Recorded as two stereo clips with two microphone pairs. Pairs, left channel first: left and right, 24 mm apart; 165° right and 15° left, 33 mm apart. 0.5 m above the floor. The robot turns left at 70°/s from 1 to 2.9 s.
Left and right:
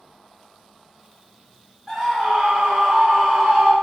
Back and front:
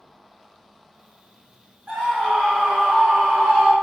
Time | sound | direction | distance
1.9 | a scream | straight ahead | 1.7 m